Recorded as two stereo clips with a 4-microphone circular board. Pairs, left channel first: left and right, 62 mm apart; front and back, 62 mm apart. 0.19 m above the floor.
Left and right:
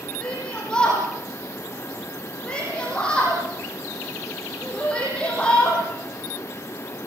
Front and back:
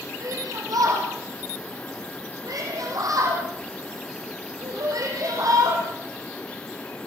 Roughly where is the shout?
Behind.